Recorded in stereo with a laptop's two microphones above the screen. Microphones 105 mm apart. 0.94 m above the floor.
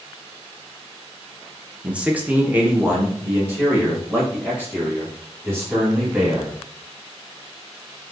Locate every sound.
1.8 s a man speaking: 10° right (ahead or behind), 0.6 m; by 6.5 s 20° right (ahead or behind), 3 m